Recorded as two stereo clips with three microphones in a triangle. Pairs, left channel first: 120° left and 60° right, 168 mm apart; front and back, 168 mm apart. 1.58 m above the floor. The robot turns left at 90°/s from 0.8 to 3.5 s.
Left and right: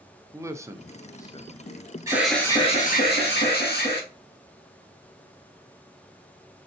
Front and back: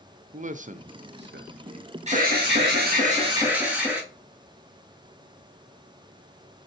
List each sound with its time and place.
0.3 s a man speaking: 130° right, 0.6 m; by 1.9 s 125° left, 0.6 m
2.1 s an alarm: 130° right, 1.6 m; by 4.0 s 100° left, 1.6 m